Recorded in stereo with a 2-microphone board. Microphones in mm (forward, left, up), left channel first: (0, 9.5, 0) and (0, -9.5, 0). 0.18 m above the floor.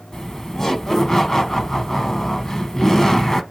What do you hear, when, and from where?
0.1 s laughter: 30° left (ahead or behind), 1.1 m